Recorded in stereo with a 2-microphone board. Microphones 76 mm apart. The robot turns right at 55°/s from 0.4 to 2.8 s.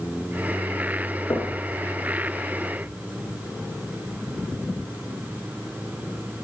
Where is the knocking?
50° left (ahead or behind), 2.5 m; by 1.6 s 60° left (ahead or behind), 2.5 m.